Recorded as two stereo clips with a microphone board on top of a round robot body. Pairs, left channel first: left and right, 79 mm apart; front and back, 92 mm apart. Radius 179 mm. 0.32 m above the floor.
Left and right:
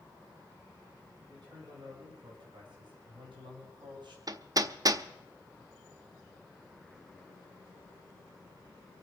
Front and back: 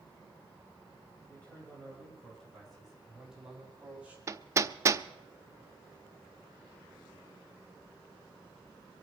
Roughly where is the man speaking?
Right.